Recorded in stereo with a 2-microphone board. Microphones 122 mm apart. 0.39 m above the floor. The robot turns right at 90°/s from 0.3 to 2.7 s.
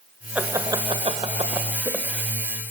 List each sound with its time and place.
0.3 s laughter: 10° right (ahead or behind), 1.4 m; by 2.7 s 30° left (ahead or behind), 1.4 m